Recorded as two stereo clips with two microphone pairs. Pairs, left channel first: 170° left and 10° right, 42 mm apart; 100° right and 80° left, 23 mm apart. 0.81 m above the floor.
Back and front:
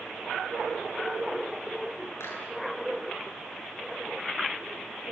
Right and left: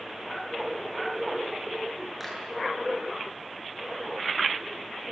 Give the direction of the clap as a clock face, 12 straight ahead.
6 o'clock.